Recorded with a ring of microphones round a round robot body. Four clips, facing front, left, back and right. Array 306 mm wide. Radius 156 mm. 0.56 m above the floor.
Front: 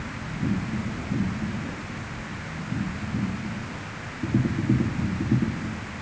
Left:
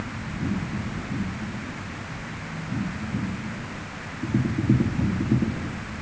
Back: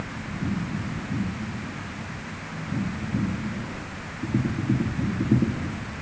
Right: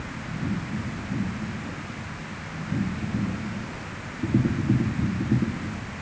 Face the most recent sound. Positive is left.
No sound to turn to.